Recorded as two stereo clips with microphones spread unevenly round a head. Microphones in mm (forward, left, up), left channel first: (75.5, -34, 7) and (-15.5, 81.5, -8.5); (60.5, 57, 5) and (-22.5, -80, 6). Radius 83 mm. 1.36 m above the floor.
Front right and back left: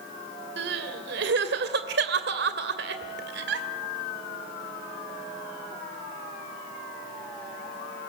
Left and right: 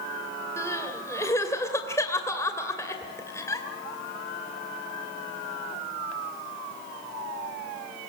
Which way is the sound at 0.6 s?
135° left.